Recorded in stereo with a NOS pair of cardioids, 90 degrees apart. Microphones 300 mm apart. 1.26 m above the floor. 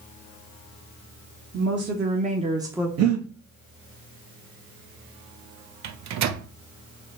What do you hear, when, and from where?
1.5 s a woman speaking: 40° right, 1.2 m; by 2.9 s straight ahead, 0.7 m
3.0 s breathing: 60° right, 1.2 m
5.8 s a microwave: 70° right, 0.6 m